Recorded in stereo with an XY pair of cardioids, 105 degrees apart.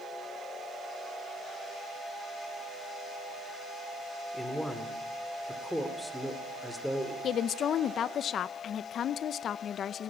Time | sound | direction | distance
4.3 | a man speaking | 5° left | 2.5 m
7.2 | a woman speaking | 60° left | 0.6 m